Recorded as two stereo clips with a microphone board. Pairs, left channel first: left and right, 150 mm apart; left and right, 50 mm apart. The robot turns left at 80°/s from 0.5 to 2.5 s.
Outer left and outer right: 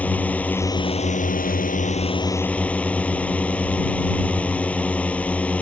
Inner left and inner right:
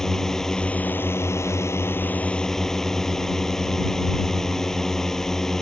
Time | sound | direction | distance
0.0 | a drone | 170° left | ?